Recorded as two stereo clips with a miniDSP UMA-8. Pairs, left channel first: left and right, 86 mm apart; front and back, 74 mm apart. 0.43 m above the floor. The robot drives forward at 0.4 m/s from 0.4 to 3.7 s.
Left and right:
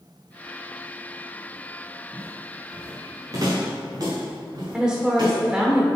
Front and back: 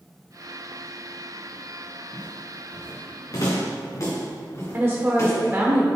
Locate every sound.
2.1 s footsteps: 25° right, 2.5 m; by 5.4 s 50° right, 4 m
4.7 s a woman speaking: 160° right, 1.0 m